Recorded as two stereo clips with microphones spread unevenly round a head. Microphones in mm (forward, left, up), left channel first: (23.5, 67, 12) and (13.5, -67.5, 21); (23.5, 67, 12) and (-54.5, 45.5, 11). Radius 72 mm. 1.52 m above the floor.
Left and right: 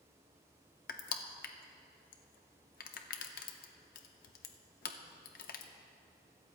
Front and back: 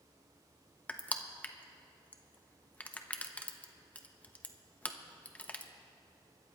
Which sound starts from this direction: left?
Crushing, at 0.9 s.